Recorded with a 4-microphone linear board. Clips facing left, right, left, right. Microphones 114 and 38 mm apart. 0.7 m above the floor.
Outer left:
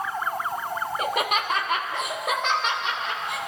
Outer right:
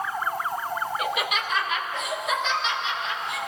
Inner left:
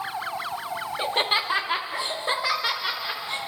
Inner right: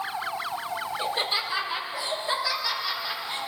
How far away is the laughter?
About 1.3 m.